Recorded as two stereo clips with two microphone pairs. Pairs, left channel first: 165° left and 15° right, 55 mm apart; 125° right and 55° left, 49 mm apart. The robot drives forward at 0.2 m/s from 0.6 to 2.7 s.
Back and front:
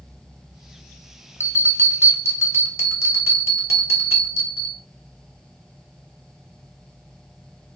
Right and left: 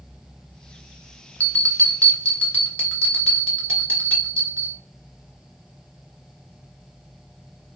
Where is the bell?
175° right, 1.1 m; by 4.8 s straight behind, 1.3 m.